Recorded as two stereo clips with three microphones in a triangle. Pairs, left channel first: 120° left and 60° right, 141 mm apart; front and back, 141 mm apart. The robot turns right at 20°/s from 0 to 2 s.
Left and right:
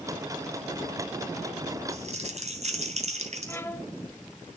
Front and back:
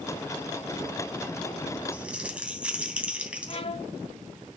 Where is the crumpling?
100° right, 2.5 m.